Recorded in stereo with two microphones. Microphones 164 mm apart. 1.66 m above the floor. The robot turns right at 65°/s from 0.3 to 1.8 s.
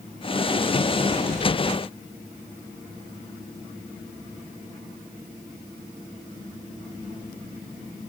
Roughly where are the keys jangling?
No keys jangling in this recording.